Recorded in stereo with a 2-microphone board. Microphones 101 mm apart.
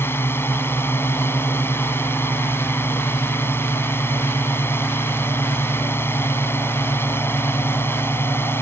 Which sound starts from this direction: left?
A drone, at 0.0 s.